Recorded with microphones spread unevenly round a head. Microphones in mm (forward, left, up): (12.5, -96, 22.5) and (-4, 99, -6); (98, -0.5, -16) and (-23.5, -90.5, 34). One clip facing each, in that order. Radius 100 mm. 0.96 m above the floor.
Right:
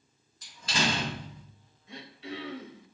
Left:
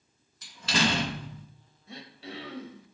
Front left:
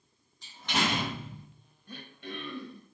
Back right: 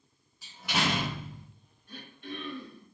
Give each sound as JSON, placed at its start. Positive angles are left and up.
{"t": 0.4, "sound": "a door slam", "azimuth_deg": 130, "distance_m": 0.7}
{"t": 1.9, "sound": "throat clearing", "azimuth_deg": 45, "distance_m": 0.9}